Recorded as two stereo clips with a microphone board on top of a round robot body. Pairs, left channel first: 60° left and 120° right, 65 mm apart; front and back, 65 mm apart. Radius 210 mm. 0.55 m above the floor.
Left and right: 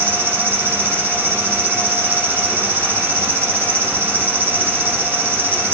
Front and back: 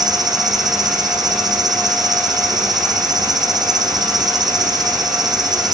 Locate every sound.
0.0 s an insect: straight behind, 1.7 m